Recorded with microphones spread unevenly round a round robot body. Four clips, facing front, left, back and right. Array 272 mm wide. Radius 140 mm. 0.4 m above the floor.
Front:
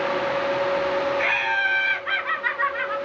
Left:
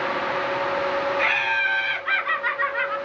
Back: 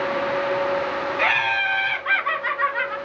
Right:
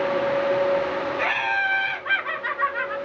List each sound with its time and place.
1.2 s laughter: 165° right, 3 m; by 3.0 s 140° right, 2.5 m